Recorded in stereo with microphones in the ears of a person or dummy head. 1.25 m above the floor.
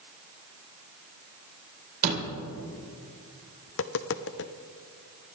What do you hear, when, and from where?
2.0 s a door slam: 50° right (ahead or behind), 4 m
3.7 s tapping: 60° left (ahead or behind), 0.7 m